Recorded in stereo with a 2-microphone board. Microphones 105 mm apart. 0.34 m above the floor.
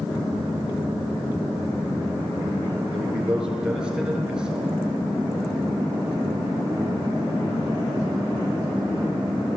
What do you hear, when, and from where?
2.9 s a man speaking: 10° right (ahead or behind), 6 m